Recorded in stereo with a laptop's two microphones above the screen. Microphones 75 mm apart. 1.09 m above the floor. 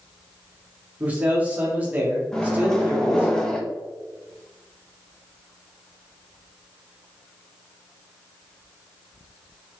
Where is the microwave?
10° left (ahead or behind), 0.5 m.